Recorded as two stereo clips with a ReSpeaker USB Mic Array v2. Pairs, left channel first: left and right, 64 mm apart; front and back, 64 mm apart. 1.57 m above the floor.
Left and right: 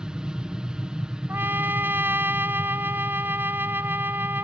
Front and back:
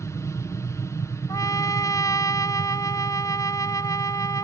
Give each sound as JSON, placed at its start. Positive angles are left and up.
{"t": 0.0, "sound": "an aircraft", "azimuth_deg": -20}
{"t": 1.3, "sound": "a trumpet", "azimuth_deg": -35}